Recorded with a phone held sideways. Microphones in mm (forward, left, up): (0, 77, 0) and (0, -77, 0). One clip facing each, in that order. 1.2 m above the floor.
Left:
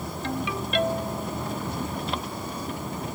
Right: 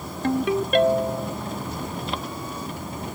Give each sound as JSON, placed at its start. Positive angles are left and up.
{"t": 0.2, "sound": "a ringtone", "side_deg": -50, "distance_m": 0.9}